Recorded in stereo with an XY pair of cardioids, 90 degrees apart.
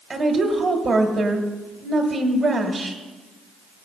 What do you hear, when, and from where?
0.1 s a woman speaking: 45° right, 1.7 m